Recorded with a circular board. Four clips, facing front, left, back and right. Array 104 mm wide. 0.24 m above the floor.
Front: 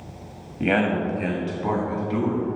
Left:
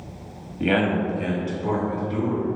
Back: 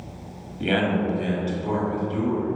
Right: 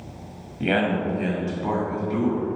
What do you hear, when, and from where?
0.6 s a man speaking: 5° left, 1.1 m; by 2.5 s 25° right, 2.0 m